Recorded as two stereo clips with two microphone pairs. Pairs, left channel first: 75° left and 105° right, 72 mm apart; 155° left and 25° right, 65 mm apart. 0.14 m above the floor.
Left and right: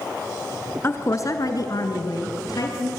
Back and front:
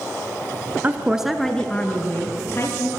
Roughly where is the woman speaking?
Ahead left.